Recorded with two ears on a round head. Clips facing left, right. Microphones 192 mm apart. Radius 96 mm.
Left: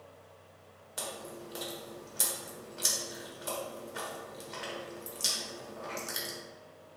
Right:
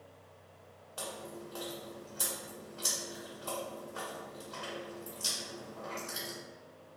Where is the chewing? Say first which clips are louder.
Left 1 dB; 30° left (ahead or behind), 1.1 m.